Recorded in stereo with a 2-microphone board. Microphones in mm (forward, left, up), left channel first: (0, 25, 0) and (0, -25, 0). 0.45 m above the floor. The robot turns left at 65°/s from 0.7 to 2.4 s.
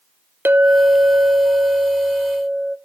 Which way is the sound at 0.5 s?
50° right.